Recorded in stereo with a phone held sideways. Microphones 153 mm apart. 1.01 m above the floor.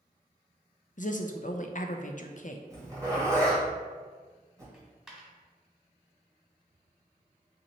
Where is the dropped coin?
Centre (ahead or behind), 1.3 m.